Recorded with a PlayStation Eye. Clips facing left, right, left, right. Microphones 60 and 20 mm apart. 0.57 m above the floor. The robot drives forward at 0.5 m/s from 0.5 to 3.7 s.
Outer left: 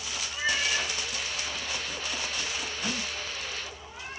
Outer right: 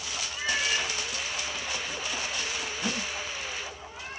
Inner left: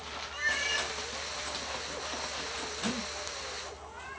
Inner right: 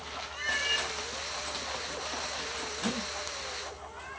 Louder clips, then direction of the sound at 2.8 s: Outer right 2 dB, inner right 1 dB; 40° right (ahead or behind).